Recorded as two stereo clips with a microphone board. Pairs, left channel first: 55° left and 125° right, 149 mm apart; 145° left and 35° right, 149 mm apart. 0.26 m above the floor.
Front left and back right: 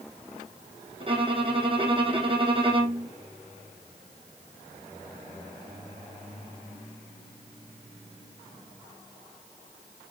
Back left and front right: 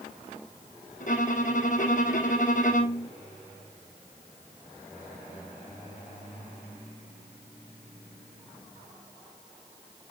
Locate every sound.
1.0 s a violin: straight behind, 2.5 m